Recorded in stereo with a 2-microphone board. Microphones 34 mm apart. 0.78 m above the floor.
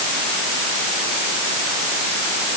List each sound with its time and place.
Only background noise.